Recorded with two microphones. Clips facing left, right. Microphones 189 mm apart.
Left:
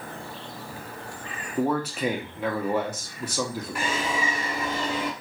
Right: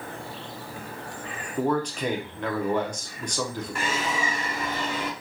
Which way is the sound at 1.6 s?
5° left (ahead or behind).